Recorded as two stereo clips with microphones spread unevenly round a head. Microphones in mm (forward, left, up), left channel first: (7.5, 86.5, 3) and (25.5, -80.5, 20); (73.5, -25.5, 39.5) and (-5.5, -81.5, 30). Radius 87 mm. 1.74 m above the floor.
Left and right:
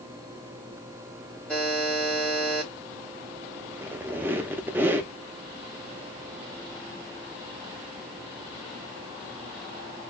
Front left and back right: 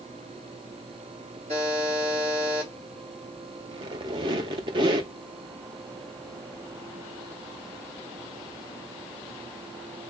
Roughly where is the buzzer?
Behind.